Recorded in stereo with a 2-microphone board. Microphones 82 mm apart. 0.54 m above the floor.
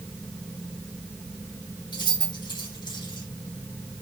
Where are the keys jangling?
60° left (ahead or behind), 2.5 m.